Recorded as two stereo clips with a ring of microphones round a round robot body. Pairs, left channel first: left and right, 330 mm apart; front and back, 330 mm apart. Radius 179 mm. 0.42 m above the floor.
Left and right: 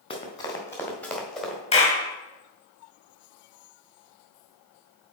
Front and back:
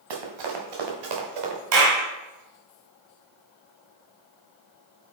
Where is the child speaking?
No child speaking in this recording.